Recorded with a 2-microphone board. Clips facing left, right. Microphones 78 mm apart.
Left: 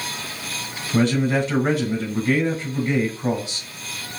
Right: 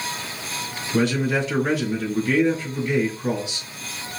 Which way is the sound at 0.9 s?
35° left (ahead or behind).